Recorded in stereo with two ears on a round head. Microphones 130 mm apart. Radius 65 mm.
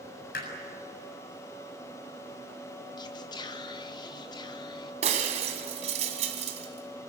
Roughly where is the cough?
I don't hear a cough.